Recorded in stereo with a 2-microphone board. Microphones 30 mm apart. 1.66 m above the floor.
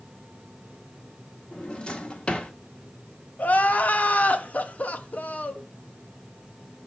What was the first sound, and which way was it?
A drawer, 25° left (ahead or behind).